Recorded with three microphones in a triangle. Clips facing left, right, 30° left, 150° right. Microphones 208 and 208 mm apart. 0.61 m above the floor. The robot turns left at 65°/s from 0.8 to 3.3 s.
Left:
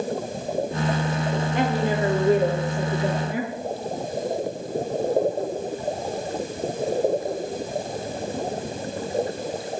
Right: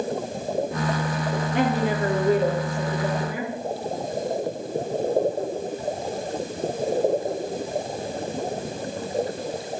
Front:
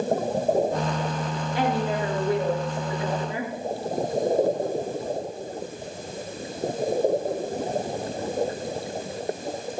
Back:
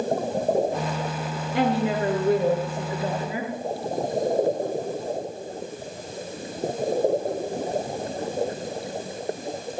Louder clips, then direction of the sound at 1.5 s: Right 1 dB, back 3 dB; 110° right.